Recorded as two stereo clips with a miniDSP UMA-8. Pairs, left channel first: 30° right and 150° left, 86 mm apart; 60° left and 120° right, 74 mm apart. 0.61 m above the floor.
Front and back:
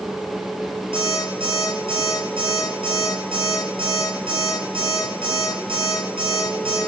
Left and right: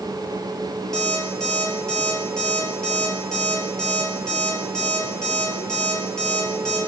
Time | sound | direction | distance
0.9 | an alarm clock | 135° left | 5 m